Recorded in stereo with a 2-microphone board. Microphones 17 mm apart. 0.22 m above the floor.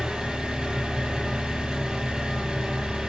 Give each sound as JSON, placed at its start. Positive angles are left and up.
{"t": 0.0, "sound": "an engine running", "side_deg": -70, "distance_m": 5.5}